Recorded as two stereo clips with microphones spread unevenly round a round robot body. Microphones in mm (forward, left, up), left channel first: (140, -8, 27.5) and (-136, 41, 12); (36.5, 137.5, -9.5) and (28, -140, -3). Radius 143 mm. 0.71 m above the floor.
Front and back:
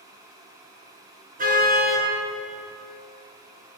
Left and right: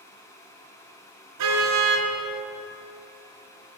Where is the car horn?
125° right, 5.5 m.